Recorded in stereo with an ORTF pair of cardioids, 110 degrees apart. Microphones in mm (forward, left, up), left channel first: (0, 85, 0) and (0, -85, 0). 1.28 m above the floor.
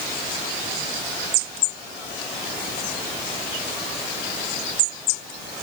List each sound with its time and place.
Only background noise.